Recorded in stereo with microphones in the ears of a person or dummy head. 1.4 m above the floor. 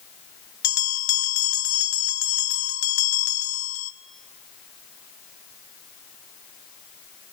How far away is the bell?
About 0.9 m.